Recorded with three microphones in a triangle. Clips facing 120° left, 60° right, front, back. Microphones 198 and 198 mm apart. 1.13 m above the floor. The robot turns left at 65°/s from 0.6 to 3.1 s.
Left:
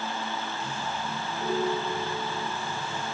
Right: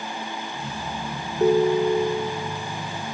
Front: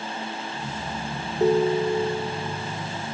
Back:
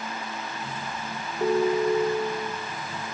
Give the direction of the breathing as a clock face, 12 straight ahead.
I don't hear breathing.